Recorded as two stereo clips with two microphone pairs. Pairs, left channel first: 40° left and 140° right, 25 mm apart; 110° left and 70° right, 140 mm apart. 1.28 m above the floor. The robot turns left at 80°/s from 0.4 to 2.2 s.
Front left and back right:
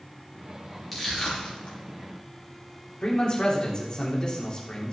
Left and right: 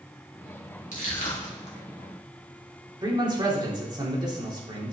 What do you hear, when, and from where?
0.9 s crushing: 125° left, 3 m; by 1.8 s 60° left, 3 m
3.0 s a man speaking: 15° right, 3 m